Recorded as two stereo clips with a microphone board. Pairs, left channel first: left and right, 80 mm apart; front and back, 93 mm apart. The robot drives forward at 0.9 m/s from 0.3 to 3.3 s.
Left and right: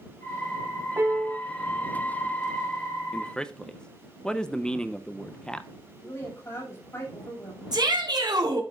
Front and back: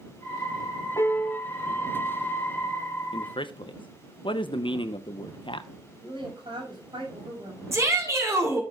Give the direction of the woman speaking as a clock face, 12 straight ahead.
7 o'clock.